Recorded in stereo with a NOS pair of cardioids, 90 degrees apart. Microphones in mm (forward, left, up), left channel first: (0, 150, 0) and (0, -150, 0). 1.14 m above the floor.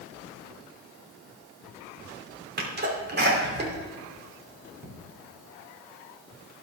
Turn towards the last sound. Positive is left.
turn(degrees=-35)